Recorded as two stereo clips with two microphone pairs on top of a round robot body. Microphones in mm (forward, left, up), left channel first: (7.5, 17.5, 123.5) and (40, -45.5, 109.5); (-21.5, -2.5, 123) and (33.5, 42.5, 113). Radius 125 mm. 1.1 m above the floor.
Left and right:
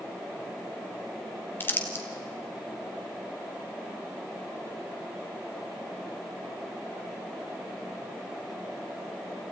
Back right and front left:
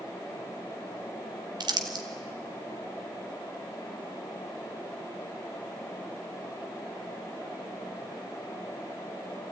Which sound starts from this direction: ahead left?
Crumpling, at 1.6 s.